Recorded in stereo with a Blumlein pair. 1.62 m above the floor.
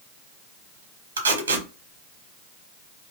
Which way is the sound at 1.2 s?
65° right.